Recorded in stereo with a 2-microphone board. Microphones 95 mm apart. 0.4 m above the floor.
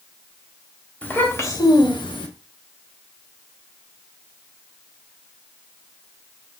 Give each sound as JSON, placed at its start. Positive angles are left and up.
{"t": 1.0, "sound": "a child speaking", "side_deg": 20, "distance_m": 0.8}